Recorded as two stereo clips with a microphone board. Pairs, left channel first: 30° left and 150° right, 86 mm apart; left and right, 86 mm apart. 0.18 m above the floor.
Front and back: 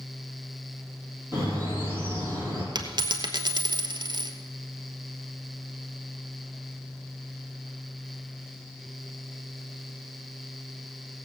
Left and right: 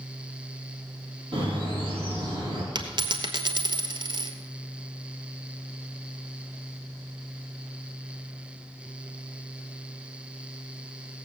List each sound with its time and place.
1.3 s a bird: 90° right, 5.5 m
2.8 s a dropped coin: 115° right, 1.1 m